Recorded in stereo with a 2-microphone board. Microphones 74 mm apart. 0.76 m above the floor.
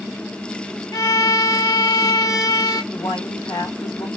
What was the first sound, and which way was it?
A violin, 55° left (ahead or behind).